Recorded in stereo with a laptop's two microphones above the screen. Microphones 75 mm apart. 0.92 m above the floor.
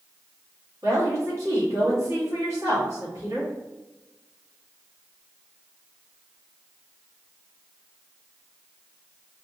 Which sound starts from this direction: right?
A woman speaking, at 0.8 s.